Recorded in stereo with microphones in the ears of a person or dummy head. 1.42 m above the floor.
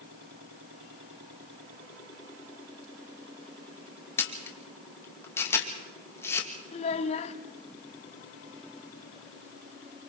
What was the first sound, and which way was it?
A camera shutter, 15° left (ahead or behind).